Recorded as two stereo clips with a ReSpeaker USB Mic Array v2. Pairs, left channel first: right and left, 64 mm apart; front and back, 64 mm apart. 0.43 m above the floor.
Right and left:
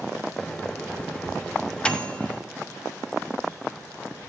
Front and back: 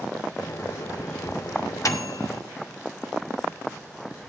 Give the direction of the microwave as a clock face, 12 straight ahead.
1 o'clock.